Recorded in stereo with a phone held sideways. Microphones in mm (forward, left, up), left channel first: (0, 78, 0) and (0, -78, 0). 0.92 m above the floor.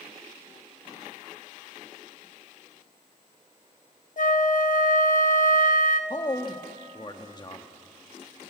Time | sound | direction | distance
4.2 | a flute | 65° left (ahead or behind) | 0.8 m
6.1 | a man speaking | 30° left (ahead or behind) | 1.1 m